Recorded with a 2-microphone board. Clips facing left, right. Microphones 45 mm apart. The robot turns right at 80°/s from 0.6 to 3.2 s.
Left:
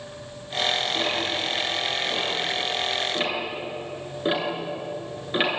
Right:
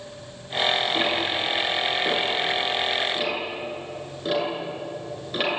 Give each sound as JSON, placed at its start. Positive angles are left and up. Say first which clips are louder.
{"t": 0.9, "sound": "ticking", "louder": "right 2 dB", "side_deg": -20, "distance_m": 8.0}